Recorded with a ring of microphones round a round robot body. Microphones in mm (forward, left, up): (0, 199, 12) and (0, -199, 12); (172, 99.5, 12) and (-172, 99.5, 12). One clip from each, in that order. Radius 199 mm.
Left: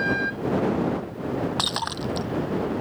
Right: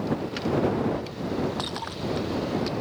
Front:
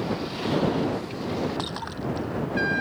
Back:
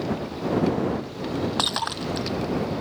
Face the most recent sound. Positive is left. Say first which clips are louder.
# left 5 dB, back 7 dB
turn(degrees=155)